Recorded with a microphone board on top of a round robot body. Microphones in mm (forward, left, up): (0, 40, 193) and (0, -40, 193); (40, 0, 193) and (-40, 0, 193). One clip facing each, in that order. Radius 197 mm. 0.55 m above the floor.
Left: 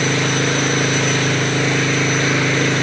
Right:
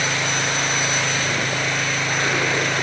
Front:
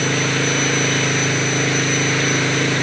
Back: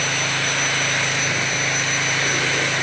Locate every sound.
0.0 s an engine running: 45° left